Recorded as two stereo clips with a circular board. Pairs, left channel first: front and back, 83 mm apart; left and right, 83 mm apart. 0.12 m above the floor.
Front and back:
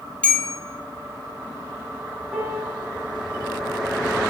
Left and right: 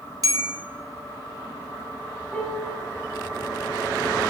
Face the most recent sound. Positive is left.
turn(degrees=100)